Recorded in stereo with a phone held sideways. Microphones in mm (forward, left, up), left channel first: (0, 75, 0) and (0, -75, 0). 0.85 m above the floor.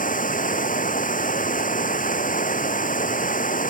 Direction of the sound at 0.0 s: 65° left (ahead or behind).